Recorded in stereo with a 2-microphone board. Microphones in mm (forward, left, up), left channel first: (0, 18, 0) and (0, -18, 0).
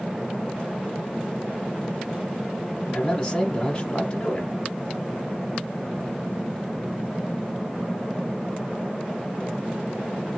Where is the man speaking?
20° left (ahead or behind), 1.0 m.